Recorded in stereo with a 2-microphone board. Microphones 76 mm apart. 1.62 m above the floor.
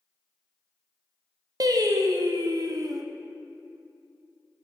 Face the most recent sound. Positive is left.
turn(degrees=-55)  # may be behind; listen again after turning